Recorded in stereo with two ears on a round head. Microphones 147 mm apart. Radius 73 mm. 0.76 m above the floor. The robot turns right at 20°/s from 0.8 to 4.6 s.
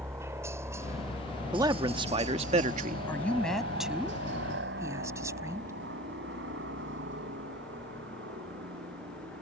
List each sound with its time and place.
0.0 s a helicopter: 15° right (ahead or behind); by 9.4 s 80° right
1.5 s a man speaking: 20° right (ahead or behind); by 3.0 s 45° right (ahead or behind)
3.1 s a woman speaking: 170° left; by 5.7 s 160° right